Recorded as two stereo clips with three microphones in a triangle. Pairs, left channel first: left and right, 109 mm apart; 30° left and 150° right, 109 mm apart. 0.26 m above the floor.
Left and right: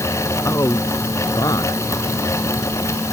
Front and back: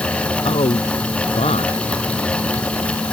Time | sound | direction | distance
0.5 | a man speaking | 30° left | ?